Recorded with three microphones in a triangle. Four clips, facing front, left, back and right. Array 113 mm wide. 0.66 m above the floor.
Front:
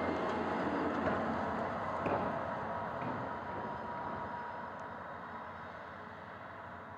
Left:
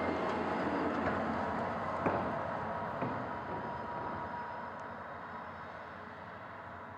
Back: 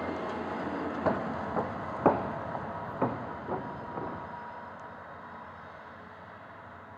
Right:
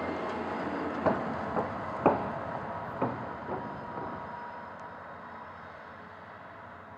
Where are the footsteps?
125° right, 2 m; by 4.2 s 155° right, 4.5 m.